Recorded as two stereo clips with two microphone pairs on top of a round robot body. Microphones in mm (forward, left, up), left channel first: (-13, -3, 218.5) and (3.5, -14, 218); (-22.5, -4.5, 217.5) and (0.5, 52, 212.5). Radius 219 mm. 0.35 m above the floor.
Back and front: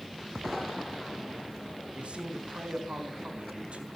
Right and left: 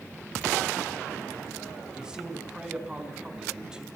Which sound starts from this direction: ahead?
A man speaking, at 1.9 s.